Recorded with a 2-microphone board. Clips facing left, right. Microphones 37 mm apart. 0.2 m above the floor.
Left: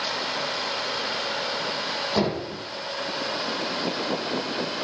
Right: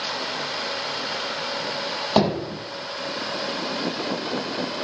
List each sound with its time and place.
2.2 s hammering: 65° right (ahead or behind), 4.5 m